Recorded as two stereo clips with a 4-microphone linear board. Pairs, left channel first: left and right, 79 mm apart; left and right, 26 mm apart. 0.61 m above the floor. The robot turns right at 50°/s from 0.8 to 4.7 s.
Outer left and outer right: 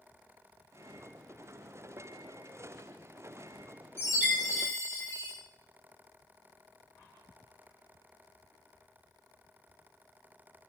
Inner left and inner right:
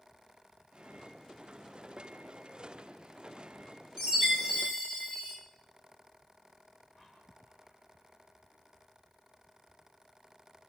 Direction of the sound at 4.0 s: 30° left.